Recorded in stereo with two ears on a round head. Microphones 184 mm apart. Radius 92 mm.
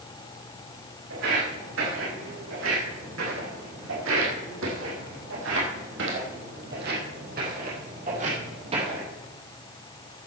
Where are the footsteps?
65° right (ahead or behind), 5.5 m; by 9.1 s 25° right (ahead or behind), 3.5 m.